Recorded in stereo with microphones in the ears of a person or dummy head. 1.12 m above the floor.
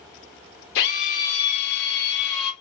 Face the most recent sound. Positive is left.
turn(degrees=60)  # may be behind; listen again after turning